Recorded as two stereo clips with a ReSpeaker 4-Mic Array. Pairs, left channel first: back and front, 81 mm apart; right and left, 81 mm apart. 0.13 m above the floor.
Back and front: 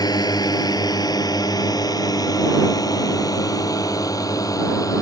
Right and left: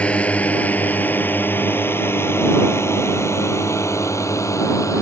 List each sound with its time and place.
0.0 s a drone: 165° right; by 5.0 s 135° right